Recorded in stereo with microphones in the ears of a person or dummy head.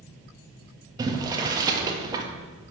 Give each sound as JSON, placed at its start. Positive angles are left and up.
{"t": 1.0, "sound": "boiling", "side_deg": -25, "distance_m": 1.8}